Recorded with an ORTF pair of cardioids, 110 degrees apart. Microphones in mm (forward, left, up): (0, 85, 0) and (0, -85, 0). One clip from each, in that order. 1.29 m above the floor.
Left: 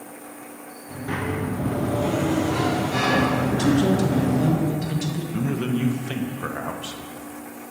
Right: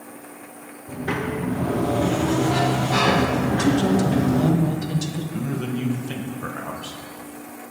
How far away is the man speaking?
About 0.7 m.